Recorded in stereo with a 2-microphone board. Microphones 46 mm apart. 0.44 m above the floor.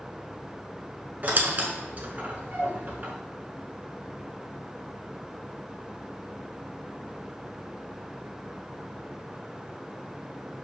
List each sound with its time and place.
1.2 s a squeak: 35° right (ahead or behind), 0.9 m